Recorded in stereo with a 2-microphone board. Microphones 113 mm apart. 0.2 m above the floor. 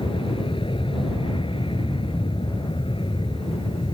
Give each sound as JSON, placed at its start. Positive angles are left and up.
{"t": 0.0, "sound": "an aircraft", "side_deg": 50}